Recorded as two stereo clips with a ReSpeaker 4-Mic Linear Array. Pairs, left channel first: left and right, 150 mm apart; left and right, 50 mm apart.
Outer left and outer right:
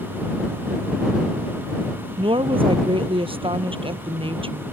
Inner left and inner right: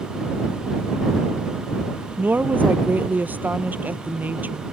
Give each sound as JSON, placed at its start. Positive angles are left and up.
{"t": 2.2, "sound": "a woman speaking", "side_deg": -35}